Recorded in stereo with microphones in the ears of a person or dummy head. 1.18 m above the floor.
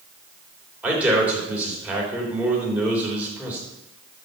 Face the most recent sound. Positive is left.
turn(degrees=-5)  # may be behind; listen again after turning